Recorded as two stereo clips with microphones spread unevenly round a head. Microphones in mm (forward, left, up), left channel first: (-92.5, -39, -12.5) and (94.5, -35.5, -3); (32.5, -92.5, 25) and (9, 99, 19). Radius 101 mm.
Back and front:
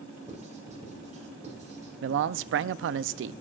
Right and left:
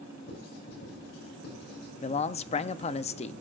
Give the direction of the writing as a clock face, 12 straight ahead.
2 o'clock.